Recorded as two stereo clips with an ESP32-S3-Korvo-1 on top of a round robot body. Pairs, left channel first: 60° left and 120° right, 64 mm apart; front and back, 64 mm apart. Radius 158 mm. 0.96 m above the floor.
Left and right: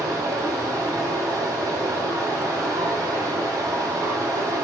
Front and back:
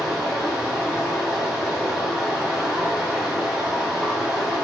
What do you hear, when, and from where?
0.0 s running water: 95° right, 1.0 m